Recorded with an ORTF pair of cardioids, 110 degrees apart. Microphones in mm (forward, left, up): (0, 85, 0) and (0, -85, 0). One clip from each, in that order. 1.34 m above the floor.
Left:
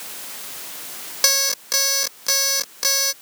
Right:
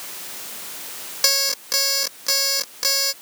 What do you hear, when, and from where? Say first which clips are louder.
1.2 s an alarm clock: left 1 dB; 15° left